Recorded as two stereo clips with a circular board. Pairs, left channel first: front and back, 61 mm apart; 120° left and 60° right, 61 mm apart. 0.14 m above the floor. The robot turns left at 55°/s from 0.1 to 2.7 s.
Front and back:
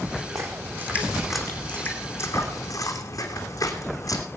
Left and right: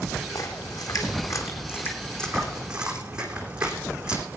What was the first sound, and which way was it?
A splash, 145° left.